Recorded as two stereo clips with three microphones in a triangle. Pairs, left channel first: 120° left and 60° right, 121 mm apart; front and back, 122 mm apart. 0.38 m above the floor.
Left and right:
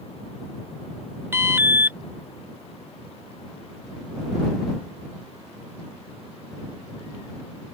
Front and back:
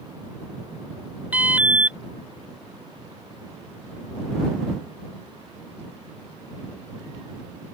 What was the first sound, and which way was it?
An alarm, 115° right.